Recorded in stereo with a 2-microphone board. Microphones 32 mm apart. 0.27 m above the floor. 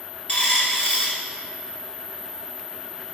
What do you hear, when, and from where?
0.3 s a dropped coin: 50° left (ahead or behind), 2 m